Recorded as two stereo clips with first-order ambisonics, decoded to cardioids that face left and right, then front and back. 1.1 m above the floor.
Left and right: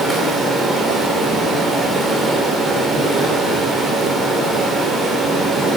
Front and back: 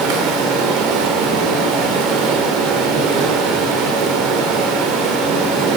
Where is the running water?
170° right, 1.9 m.